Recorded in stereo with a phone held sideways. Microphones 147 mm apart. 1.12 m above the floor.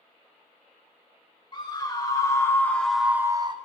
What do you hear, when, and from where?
1.5 s a scream: 30° left (ahead or behind), 1.6 m; by 3.6 s 35° right (ahead or behind), 0.6 m